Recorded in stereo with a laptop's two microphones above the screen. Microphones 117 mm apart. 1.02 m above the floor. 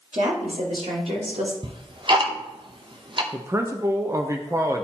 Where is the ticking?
45° right (ahead or behind), 0.6 m.